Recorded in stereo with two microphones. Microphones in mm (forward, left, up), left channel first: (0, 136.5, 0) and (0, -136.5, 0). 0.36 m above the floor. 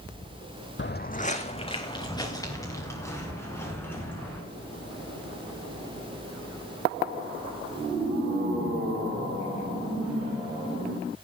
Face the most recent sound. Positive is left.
turn(degrees=5)  # may be behind; listen again after turning